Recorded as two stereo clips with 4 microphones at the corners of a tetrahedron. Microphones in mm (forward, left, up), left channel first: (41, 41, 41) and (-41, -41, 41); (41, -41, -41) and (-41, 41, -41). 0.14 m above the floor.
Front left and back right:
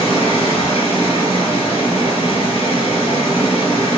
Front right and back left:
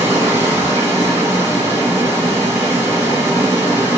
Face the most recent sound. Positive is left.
turn(degrees=75)